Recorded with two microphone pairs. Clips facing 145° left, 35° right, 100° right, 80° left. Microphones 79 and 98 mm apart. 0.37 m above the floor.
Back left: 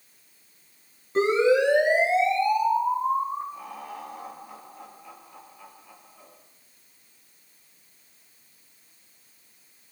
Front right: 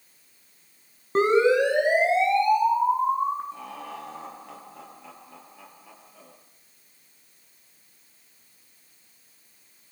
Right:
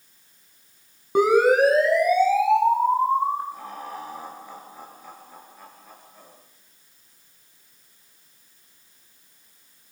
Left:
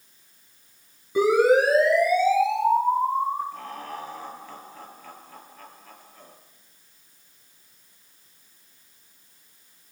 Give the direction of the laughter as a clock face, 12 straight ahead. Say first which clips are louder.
Even, even; 1 o'clock.